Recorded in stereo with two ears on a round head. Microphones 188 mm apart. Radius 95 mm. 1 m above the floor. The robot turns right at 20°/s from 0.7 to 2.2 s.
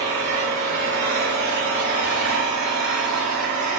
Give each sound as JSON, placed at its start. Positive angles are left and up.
{"t": 0.0, "sound": "an engine running", "azimuth_deg": -30, "distance_m": 1.9}